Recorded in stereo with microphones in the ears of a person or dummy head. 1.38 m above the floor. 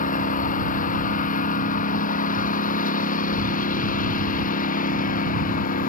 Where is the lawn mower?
55° left (ahead or behind).